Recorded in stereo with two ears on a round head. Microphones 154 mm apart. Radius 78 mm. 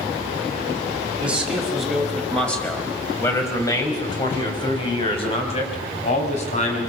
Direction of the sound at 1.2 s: 10° right (ahead or behind).